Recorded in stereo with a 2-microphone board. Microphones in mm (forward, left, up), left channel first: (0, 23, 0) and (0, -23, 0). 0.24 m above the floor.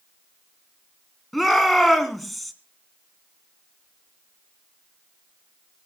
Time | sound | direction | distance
1.3 | a shout | centre (ahead or behind) | 2 m